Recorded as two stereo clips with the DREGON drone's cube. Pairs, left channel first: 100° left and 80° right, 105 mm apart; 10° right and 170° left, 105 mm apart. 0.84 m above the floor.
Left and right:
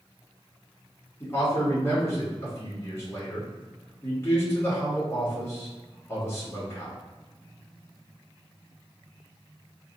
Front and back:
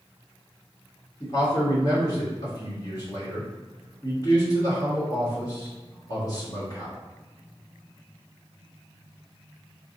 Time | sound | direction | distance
1.2 | a man speaking | 35° left | 1.4 m